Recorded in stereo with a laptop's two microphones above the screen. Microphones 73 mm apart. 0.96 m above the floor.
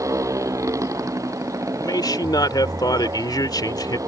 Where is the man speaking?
65° left (ahead or behind).